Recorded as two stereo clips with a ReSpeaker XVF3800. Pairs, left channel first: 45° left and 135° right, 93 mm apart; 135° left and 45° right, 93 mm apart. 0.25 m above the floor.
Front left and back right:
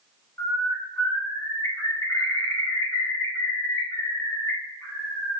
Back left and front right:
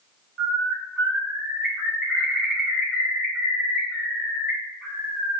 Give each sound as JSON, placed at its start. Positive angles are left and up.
{"t": 0.4, "sound": "a bird", "azimuth_deg": 35, "distance_m": 1.5}